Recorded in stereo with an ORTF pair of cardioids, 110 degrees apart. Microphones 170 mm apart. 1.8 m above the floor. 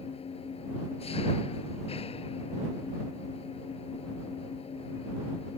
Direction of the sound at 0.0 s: 40° left.